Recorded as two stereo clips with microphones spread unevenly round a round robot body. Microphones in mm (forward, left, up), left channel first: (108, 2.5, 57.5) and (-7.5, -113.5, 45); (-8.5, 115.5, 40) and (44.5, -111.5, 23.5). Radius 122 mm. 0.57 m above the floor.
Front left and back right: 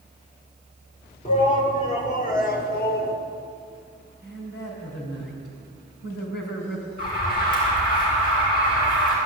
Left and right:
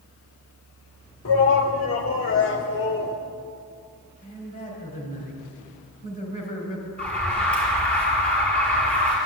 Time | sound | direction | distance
1.2 | a shout | 100° left | 2 m
4.2 | a man speaking | 50° left | 4 m
7.0 | an alarm | 15° left | 6.5 m